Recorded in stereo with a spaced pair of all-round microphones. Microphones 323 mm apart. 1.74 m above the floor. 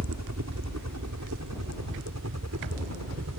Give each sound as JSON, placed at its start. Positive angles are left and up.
{"t": 0.0, "sound": "a helicopter", "side_deg": -55}